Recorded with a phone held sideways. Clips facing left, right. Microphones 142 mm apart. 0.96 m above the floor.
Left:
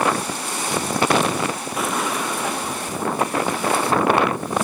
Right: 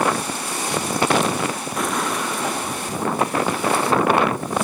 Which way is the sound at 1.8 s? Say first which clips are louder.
Even; 5° left (ahead or behind).